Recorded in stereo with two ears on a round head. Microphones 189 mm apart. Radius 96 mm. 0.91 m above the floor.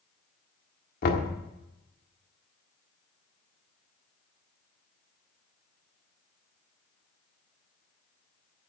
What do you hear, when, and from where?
1.0 s knocking: 45° left (ahead or behind), 1.5 m